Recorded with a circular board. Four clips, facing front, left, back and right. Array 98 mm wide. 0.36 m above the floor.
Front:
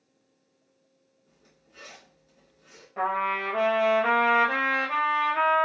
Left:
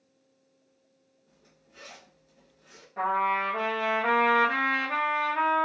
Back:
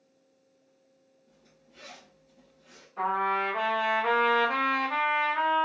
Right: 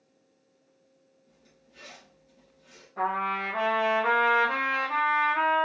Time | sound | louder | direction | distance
1.3 | a zipper | left 1 dB, front 1 dB | 35° left | 2.5 m
3.0 | a trumpet | left 2 dB, even | 20° left | 1.7 m